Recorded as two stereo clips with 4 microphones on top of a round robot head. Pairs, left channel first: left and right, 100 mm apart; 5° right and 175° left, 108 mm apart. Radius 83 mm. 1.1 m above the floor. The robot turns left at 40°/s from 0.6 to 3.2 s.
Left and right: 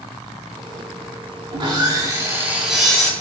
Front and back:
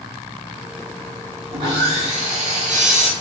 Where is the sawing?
125° right, 1.0 m; by 3.1 s 170° left, 1.0 m.